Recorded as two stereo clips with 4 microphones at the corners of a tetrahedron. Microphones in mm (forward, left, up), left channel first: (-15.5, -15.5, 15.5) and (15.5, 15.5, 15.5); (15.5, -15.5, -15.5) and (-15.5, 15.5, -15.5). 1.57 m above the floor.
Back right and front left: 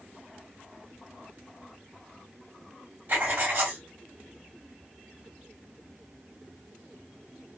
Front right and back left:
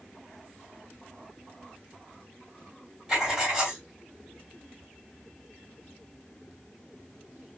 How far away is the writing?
About 1.8 m.